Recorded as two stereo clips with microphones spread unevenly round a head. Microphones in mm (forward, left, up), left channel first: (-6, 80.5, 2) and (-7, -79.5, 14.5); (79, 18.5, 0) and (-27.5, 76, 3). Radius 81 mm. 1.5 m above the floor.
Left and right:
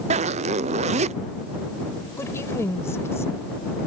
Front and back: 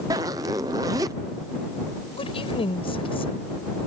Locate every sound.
0.1 s a zipper: 140° right
2.2 s a woman speaking: 15° left